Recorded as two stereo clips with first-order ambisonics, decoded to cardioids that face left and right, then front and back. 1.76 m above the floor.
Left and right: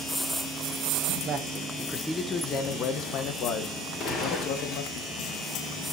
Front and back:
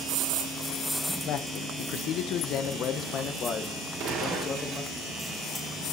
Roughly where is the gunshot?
Behind left.